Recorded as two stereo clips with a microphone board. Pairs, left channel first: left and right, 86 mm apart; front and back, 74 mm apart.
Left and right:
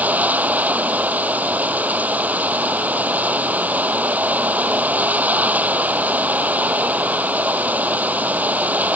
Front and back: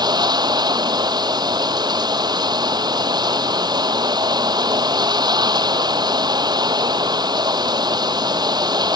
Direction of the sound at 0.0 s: 160° right.